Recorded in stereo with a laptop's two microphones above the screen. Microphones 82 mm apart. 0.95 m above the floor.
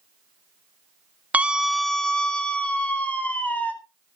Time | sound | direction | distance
1.3 | a scream | 15° right (ahead or behind) | 0.8 m